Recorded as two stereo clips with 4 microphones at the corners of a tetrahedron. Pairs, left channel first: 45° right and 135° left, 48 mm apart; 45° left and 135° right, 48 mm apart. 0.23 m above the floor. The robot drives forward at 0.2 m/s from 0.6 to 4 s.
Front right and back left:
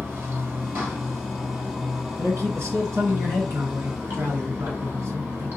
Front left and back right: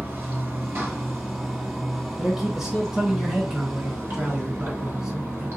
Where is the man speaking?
150° left, 2.5 m; by 5.5 s 155° left, 3 m.